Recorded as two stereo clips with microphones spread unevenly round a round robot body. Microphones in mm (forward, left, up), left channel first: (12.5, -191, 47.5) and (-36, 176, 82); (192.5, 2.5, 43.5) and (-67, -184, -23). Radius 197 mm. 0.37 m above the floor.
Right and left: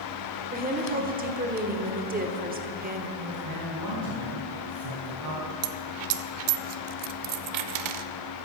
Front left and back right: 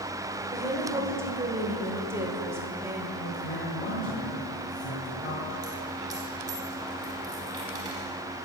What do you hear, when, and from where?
0.5 s a woman speaking: 155° left, 1.2 m
3.2 s a man speaking: 60° left, 3 m
5.6 s a dropped coin: 140° left, 0.6 m